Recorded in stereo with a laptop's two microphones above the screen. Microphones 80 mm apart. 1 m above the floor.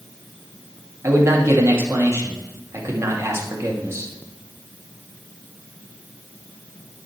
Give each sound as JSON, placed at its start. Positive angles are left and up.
{"t": 1.0, "sound": "a man speaking", "side_deg": -35, "distance_m": 2.0}